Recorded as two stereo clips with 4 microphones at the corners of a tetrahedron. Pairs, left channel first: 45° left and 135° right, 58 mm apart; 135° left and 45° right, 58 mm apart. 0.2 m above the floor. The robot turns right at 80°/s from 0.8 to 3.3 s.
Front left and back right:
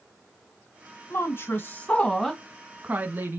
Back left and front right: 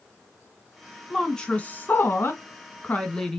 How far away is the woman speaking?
About 1.4 m.